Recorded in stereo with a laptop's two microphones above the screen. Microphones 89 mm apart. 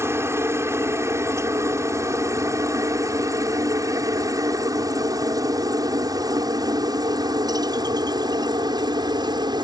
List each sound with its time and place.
0.0 s a helicopter: 30° right (ahead or behind); by 9.6 s 55° right (ahead or behind)